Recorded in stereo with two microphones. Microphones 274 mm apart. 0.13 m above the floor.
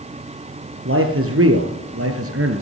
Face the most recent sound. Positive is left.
turn(degrees=-50)  # may be behind; listen again after turning